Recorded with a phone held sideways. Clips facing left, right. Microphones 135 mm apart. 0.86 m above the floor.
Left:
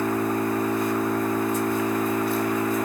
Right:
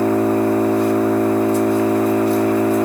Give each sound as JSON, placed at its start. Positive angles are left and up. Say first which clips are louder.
{"t": 0.0, "sound": "an engine running", "louder": "right 8 dB", "side_deg": -75, "distance_m": 1.8}